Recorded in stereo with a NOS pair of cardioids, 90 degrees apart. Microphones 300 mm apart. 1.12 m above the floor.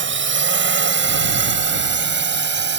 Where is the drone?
40° right; by 2.8 s 35° right.